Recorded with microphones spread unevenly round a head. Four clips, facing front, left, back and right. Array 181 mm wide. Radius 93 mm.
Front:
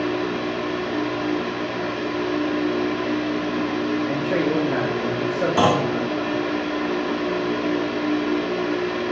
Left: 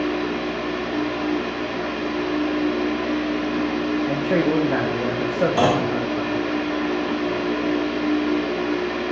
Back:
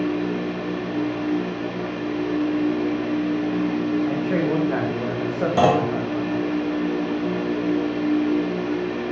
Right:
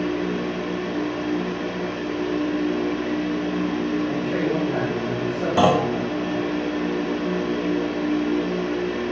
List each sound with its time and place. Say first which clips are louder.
0.0 s a fan: left 1 dB, even; 90° left, 1.3 m
4.1 s a man speaking: left 3 dB, even; 95° left, 1.5 m
5.6 s a clunk: right 4 dB, back 2 dB; 165° right, 1.5 m